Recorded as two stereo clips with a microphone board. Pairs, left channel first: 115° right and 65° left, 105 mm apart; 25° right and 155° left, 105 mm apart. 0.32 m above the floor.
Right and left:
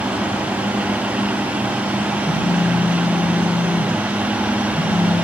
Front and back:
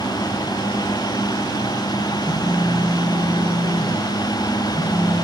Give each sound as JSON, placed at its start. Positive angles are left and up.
{"t": 2.2, "sound": "a phone buzzing", "azimuth_deg": -105, "distance_m": 7.0}